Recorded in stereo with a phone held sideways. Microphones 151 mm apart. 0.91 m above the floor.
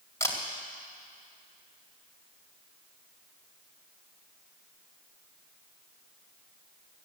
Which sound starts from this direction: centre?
A camera shutter, at 0.2 s.